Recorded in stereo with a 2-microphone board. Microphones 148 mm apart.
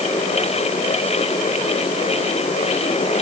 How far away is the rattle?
No rattle in this recording.